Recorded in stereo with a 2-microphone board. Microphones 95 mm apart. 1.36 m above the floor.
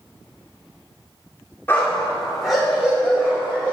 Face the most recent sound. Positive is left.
turn(degrees=-20)  # may be behind; listen again after turning